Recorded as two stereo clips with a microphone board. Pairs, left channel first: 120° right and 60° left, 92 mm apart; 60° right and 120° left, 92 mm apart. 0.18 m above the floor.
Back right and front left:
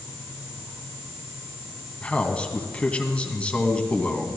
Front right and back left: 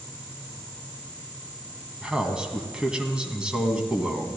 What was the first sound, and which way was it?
A man speaking, 175° right.